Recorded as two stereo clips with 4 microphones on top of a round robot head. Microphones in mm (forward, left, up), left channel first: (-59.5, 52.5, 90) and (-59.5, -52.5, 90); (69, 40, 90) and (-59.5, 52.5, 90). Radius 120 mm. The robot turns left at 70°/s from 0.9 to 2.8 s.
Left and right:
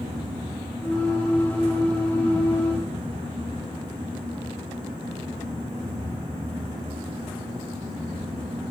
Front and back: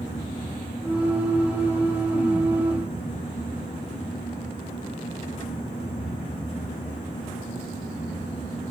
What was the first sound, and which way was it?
Only background noise.